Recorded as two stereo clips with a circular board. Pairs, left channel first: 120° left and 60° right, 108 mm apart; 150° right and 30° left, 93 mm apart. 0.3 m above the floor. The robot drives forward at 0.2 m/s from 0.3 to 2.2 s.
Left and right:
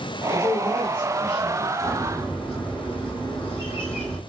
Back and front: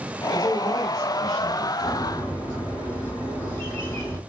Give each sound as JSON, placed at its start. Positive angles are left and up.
{"t": 0.3, "sound": "a man speaking", "azimuth_deg": 115, "distance_m": 1.3}
{"t": 1.9, "sound": "a bird", "azimuth_deg": -170, "distance_m": 1.4}